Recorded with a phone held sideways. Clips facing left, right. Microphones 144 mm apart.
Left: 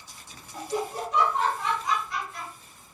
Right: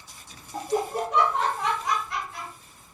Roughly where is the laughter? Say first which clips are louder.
Right 4 dB; right.